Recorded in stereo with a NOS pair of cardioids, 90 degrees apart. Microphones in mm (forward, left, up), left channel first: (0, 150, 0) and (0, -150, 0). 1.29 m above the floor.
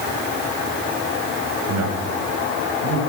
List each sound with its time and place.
1.7 s a man speaking: 65° right, 9.5 m